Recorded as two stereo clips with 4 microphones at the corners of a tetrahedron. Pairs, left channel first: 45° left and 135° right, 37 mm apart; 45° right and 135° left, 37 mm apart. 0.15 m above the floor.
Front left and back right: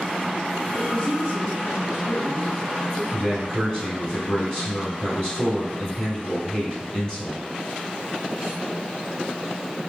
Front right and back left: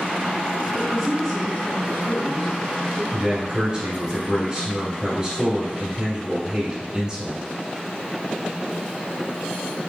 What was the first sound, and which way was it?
A woman speaking, 65° left.